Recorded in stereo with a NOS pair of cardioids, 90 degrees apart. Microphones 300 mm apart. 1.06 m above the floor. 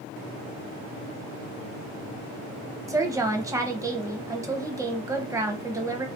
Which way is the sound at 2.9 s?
10° right.